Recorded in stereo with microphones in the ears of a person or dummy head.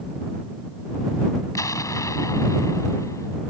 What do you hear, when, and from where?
1.6 s an explosion: 15° left (ahead or behind)